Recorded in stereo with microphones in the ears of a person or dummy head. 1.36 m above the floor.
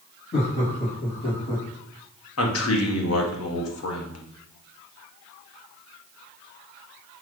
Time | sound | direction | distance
0.3 | laughter | 75° left (ahead or behind) | 2.5 m
2.4 | a man speaking | 80° left | 1.0 m